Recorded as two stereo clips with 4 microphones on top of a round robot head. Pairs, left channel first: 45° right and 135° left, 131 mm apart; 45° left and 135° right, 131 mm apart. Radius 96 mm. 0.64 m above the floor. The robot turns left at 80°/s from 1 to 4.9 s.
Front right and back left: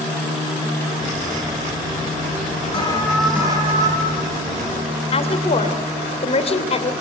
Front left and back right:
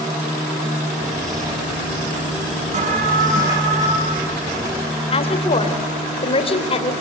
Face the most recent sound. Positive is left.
turn(degrees=0)